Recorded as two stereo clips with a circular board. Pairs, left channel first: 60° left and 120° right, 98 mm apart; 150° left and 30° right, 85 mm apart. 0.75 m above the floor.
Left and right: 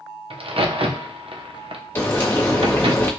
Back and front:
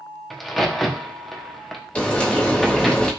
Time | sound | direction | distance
0.3 | a crack | 120° right | 0.6 m
1.9 | frying | 95° left | 1.1 m